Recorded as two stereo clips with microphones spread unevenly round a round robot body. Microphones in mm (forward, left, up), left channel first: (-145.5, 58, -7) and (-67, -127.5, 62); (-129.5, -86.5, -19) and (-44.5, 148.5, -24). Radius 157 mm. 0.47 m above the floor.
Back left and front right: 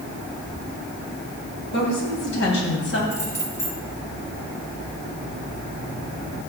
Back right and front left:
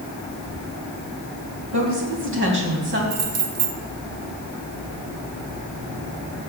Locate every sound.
1.7 s a woman speaking: 100° left, 3.5 m; by 3.0 s 110° left, 3 m
3.1 s keys jangling: 45° left, 1.5 m